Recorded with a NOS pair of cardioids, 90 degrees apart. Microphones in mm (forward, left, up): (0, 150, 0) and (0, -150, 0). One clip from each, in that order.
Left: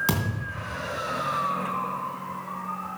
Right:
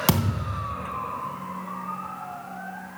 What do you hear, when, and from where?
0.1 s a thud: 40° right, 3 m